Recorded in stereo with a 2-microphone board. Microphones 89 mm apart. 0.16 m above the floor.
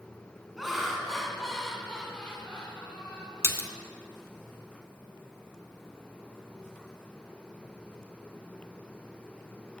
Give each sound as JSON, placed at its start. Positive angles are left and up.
{"t": 0.6, "sound": "laughter", "side_deg": 0, "distance_m": 1.5}
{"t": 3.4, "sound": "a splash", "side_deg": 30, "distance_m": 0.6}